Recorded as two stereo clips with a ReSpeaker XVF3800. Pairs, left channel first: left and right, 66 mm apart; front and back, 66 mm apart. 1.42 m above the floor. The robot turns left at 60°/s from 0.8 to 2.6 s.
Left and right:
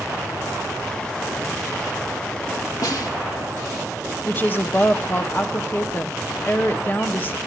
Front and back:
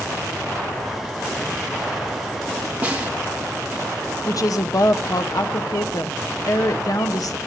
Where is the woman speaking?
30° left, 0.8 m.